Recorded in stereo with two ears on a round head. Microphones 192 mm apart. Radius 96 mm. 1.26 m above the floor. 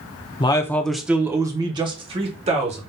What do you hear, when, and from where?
0.4 s a man speaking: 25° left (ahead or behind), 0.5 m; by 2.8 s 30° right (ahead or behind), 1.4 m